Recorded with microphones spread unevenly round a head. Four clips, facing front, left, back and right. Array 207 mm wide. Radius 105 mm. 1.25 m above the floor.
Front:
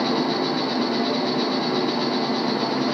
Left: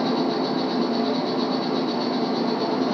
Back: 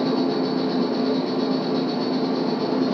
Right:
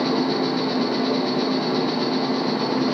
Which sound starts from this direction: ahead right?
An insect, at 0.0 s.